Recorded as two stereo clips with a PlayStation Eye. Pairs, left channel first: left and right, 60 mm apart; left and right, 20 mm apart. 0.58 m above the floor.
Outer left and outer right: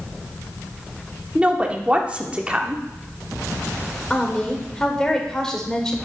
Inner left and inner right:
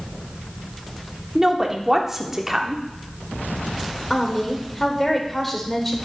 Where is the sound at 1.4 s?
20° right (ahead or behind), 1.1 m.